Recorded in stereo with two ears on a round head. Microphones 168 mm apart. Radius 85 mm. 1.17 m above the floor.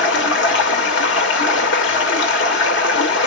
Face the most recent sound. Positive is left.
turn(degrees=65)  # may be behind; listen again after turning